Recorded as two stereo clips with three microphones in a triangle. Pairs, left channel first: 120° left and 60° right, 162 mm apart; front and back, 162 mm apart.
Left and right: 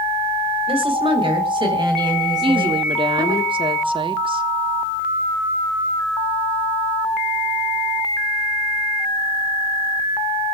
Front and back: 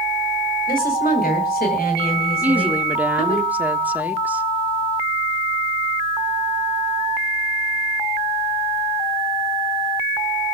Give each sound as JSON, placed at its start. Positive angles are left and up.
{"t": 0.7, "sound": "a woman speaking", "azimuth_deg": -10, "distance_m": 3.5}
{"t": 2.4, "sound": "a woman speaking", "azimuth_deg": -105, "distance_m": 1.4}